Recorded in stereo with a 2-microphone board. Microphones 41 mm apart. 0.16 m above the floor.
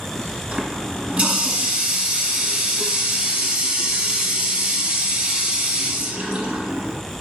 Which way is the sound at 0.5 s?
30° right (ahead or behind).